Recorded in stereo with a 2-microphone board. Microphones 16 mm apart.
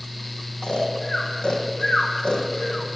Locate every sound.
0.6 s snoring: 65° left (ahead or behind), 2 m